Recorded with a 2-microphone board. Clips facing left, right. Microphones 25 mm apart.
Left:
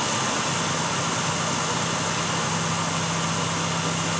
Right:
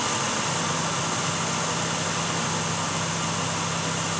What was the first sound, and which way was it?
Only background noise.